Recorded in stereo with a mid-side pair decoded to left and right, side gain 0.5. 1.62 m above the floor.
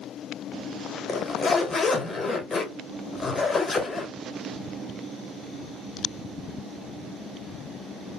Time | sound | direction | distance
1.1 | a zipper | 30° left | 1.1 m